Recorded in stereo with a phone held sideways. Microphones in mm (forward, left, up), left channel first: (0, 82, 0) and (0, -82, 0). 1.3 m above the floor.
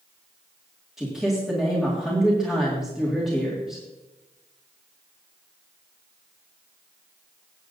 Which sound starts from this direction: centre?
A man speaking, at 1.0 s.